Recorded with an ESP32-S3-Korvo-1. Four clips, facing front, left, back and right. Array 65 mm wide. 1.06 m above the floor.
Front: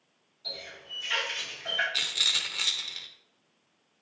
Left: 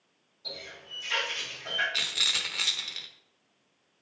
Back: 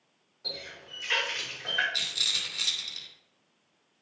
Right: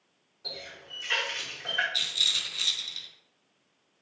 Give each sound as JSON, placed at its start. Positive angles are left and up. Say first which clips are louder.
{"t": 0.4, "sound": "a running tap", "louder": "even, back 1 dB", "azimuth_deg": -145, "distance_m": 3.0}
{"t": 1.9, "sound": "a rattle", "louder": "left 2 dB, front 3 dB", "azimuth_deg": 65, "distance_m": 0.7}